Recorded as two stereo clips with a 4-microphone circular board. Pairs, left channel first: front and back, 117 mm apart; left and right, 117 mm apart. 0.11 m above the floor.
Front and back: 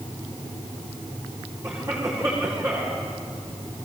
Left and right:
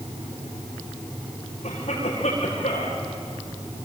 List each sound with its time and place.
1.6 s a cough: 115° left, 7.5 m